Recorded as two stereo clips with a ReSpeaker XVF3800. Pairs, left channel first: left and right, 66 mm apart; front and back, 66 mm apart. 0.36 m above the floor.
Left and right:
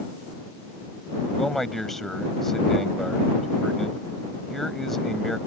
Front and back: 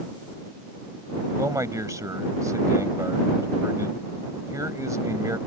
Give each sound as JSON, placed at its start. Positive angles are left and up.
{"t": 1.4, "sound": "a man speaking", "azimuth_deg": 175}